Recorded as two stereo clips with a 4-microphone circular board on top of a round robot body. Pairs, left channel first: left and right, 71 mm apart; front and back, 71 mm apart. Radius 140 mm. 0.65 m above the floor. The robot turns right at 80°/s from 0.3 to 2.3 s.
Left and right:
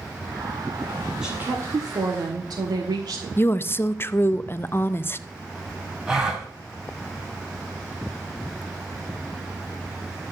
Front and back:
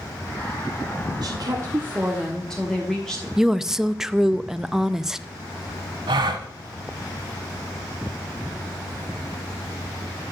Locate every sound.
1.2 s a woman speaking: 170° right, 1.3 m; by 3.3 s 80° right, 1.3 m
3.4 s a woman speaking: 100° left, 0.6 m
6.1 s a gasp: 170° right, 0.8 m